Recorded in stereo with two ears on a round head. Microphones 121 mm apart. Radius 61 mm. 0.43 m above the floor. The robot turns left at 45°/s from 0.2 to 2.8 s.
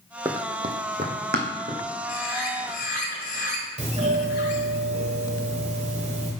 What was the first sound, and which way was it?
Running footsteps, 20° right (ahead or behind).